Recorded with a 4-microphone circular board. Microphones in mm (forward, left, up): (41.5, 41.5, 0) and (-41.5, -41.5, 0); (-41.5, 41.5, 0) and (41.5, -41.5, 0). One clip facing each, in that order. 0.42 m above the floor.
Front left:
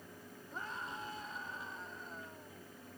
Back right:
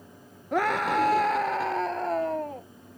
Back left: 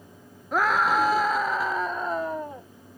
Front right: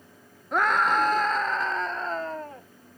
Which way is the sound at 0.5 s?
135° right.